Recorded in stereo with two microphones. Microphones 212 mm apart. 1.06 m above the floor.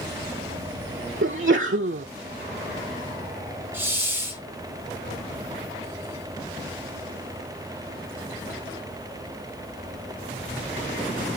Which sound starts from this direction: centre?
A hiss, at 3.7 s.